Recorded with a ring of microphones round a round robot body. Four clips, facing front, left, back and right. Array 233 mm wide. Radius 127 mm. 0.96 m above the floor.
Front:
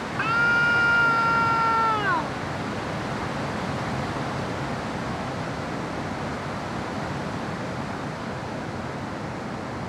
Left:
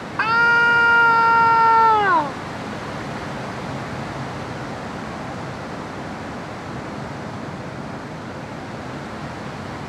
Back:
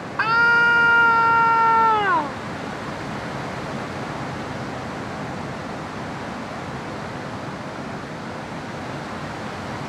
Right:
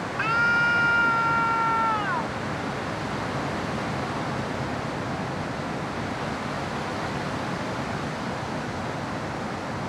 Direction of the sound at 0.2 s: 125° left.